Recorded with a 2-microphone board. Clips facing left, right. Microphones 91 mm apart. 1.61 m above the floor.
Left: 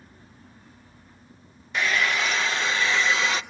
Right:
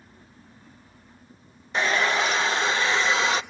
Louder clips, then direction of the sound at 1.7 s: Right 2 dB; 30° right (ahead or behind).